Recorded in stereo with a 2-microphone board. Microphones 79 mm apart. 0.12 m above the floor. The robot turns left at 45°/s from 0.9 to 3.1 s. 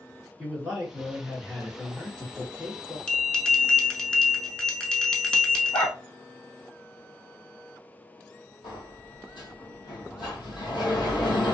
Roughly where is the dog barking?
Left.